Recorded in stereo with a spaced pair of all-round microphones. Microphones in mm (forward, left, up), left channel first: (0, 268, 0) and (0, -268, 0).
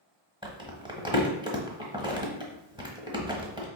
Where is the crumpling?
10° right (ahead or behind), 1.0 m.